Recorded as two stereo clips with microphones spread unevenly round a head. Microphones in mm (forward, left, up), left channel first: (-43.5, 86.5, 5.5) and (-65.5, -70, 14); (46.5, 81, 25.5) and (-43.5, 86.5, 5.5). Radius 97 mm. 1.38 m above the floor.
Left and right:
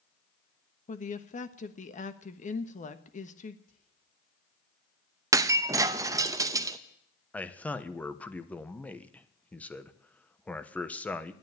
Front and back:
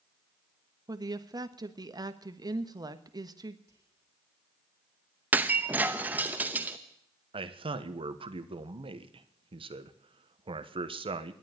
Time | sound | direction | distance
0.9 | a woman speaking | 125° left | 1.3 m
3.7 | whispering | 115° left | 7 m
5.3 | breaking glass | 100° right | 0.6 m
7.3 | a man speaking | 160° left | 1.2 m